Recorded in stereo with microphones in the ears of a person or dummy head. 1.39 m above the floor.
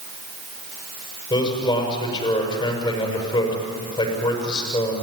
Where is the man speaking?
25° left (ahead or behind), 6.5 m.